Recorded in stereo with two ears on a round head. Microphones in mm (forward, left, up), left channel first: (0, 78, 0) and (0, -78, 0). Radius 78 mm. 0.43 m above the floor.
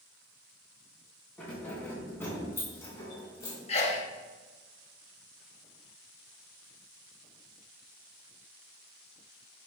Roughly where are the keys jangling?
Centre.